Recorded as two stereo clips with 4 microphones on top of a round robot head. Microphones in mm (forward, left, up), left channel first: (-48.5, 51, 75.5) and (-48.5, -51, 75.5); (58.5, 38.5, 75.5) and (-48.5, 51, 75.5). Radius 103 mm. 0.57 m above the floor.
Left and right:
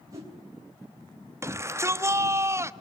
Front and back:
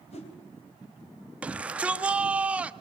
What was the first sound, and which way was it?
A whoosh, 30° right.